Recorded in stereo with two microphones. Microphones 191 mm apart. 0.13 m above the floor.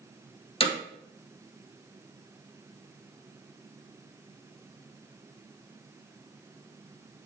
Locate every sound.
0.6 s hammering: 30° left (ahead or behind), 2.0 m